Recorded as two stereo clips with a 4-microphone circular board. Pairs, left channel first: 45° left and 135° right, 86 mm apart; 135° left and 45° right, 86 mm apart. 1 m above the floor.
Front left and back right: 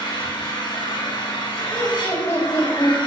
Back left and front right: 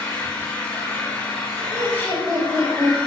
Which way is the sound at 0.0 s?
65° left.